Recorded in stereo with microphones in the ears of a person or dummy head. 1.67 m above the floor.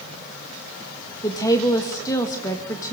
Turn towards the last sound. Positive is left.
turn(degrees=15)  # may be behind; listen again after turning